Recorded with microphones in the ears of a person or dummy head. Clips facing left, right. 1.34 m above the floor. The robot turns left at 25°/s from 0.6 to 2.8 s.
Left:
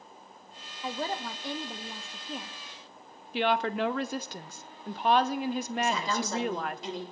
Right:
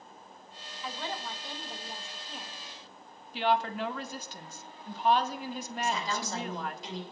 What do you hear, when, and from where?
0.8 s a woman speaking: 140° left, 0.8 m; by 2.5 s 95° left, 0.8 m
3.3 s a woman speaking: 45° left (ahead or behind), 0.6 m
5.8 s a woman speaking: 75° left (ahead or behind), 2 m